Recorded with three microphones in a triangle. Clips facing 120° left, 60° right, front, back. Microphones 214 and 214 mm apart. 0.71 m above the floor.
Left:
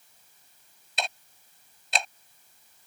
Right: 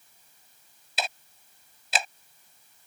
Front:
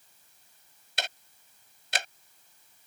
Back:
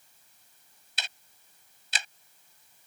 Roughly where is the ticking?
Ahead left.